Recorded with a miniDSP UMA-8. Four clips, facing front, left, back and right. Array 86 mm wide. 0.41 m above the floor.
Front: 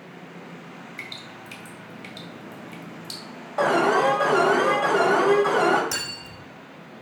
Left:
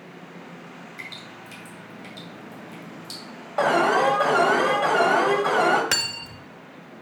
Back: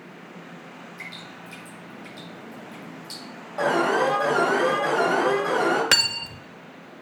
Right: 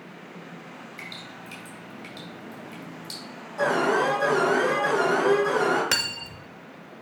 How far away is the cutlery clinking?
About 0.6 m.